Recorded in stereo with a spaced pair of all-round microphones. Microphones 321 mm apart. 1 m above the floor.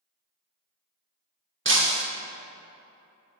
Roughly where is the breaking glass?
Right.